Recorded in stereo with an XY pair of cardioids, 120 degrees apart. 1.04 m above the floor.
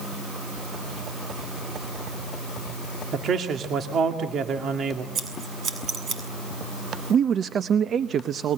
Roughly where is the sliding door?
I don't hear a sliding door.